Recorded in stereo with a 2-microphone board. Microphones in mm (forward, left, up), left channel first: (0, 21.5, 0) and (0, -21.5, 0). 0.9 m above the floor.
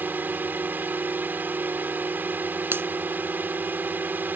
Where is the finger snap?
55° right (ahead or behind).